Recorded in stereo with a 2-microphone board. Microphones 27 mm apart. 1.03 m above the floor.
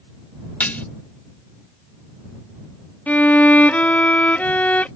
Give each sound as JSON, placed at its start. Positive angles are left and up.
{"t": 0.6, "sound": "dishes clattering", "side_deg": 70}
{"t": 3.1, "sound": "a violin", "side_deg": 70}